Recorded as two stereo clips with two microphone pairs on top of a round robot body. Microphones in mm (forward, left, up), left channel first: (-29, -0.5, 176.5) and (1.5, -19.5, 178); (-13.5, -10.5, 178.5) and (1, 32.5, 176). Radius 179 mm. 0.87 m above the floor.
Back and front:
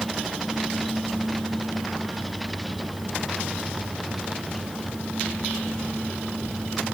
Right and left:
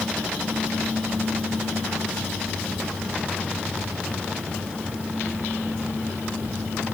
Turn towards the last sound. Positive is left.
No sound to turn to.